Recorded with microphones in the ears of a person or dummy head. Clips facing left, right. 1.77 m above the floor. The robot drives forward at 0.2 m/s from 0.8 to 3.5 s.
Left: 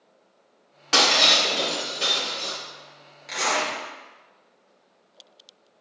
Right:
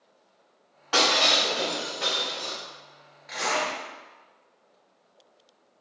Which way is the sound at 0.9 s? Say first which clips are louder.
Left 1 dB; 40° left (ahead or behind).